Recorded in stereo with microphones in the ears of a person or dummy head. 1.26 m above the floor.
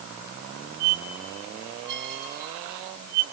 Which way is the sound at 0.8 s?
60° right (ahead or behind).